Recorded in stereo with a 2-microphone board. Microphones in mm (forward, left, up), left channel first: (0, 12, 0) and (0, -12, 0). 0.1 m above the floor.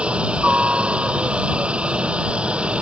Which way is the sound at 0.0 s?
55° right (ahead or behind).